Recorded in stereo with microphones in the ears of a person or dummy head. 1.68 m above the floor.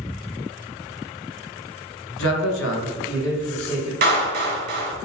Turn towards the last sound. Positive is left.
turn(degrees=-55)  # may be behind; listen again after turning